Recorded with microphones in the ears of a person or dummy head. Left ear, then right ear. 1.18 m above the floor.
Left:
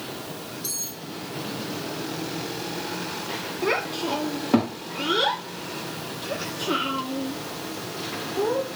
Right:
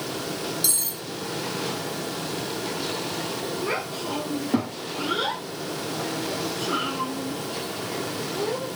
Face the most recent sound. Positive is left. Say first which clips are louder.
# left 7 dB
turn(degrees=40)  # may be behind; listen again after turning